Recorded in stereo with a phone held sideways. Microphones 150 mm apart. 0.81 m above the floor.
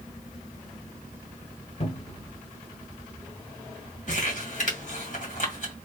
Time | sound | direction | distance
1.8 | a cupboard door | 45° left (ahead or behind) | 1.7 m
4.1 | crumpling | 60° left (ahead or behind) | 2 m